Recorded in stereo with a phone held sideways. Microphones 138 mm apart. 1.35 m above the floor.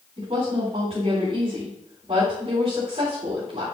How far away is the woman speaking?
About 3.5 m.